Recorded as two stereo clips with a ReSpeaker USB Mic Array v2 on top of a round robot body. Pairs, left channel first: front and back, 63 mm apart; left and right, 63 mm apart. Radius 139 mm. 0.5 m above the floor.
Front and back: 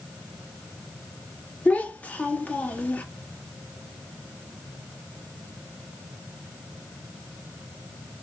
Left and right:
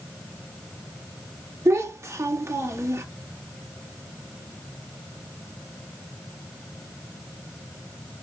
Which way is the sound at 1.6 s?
65° right.